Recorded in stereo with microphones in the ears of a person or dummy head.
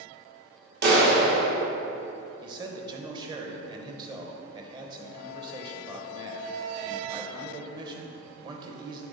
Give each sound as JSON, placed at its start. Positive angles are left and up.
{"t": 0.8, "sound": "a clap", "side_deg": -60, "distance_m": 2.0}
{"t": 2.4, "sound": "a man speaking", "side_deg": -25, "distance_m": 0.9}